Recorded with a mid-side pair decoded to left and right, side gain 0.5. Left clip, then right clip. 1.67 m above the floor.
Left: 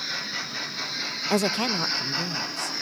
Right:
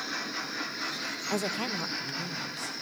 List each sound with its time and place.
1.3 s a woman speaking: 50° left, 0.7 m; by 2.7 s 40° left, 2.5 m